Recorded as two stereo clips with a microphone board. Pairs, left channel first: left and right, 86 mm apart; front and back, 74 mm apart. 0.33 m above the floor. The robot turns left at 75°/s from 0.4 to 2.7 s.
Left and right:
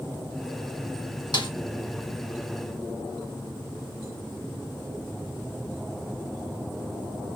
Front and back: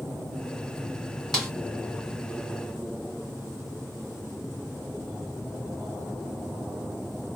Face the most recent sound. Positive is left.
turn(degrees=-15)